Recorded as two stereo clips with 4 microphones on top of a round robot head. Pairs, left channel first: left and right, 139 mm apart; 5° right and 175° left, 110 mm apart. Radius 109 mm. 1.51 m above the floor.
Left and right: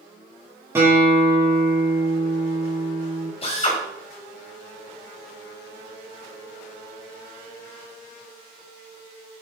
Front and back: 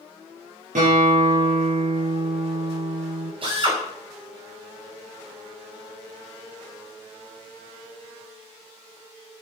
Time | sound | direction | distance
0.8 | a guitar | 160° right | 6.5 m
3.4 | a drill | 140° left | 4.5 m